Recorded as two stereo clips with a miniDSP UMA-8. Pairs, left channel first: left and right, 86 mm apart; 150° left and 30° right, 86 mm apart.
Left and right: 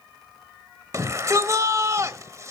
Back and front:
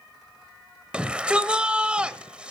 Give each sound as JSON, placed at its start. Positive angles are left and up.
{"t": 0.9, "sound": "a shout", "azimuth_deg": -100, "distance_m": 1.2}